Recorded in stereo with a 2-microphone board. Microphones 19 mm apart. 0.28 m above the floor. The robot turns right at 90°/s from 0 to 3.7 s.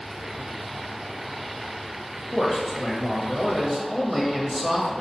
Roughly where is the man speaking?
Centre.